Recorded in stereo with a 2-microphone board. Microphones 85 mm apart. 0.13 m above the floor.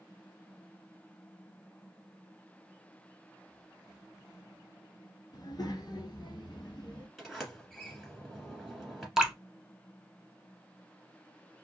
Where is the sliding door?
5° left (ahead or behind), 1.3 m.